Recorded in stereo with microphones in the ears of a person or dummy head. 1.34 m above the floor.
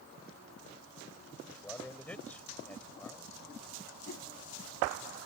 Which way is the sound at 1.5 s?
5° left (ahead or behind).